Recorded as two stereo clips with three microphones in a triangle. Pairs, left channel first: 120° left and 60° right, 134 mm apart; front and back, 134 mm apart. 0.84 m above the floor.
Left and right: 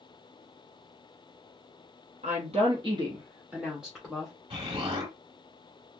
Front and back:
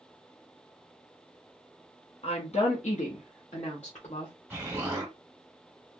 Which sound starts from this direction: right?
An explosion, at 4.5 s.